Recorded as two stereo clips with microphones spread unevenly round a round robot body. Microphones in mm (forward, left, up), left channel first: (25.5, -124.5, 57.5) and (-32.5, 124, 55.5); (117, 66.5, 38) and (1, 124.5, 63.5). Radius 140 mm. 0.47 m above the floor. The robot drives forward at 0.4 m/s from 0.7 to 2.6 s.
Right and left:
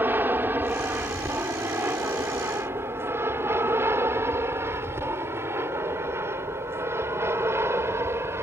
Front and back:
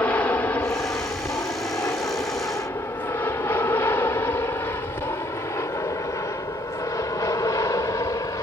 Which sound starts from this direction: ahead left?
An aircraft, at 0.0 s.